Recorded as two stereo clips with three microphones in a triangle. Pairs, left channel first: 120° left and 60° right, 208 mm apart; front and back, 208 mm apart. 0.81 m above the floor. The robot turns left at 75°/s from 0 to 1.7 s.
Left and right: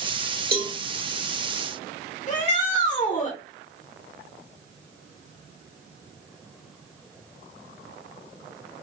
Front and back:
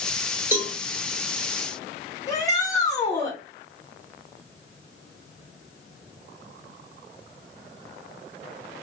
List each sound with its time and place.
0.5 s a cowbell: 100° right, 1.1 m; by 0.7 s 115° right, 1.1 m
2.3 s a shout: 70° left, 0.7 m